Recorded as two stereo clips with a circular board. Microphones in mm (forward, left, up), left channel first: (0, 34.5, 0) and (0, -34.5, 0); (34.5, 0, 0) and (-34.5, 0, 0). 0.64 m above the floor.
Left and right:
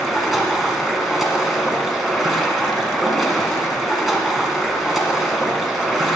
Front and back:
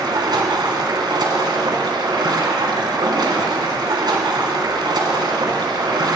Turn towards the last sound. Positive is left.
turn(degrees=180)